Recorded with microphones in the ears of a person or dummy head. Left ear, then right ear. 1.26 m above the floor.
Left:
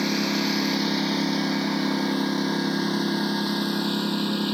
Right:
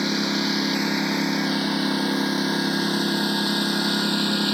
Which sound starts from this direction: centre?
A lawn mower, at 0.0 s.